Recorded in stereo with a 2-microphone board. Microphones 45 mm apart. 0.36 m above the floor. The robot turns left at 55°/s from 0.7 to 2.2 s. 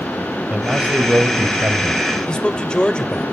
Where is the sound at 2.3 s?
20° left (ahead or behind), 1.3 m.